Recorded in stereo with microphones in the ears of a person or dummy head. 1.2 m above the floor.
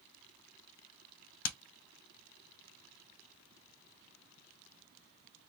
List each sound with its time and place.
1.4 s hammering: 70° left (ahead or behind), 0.7 m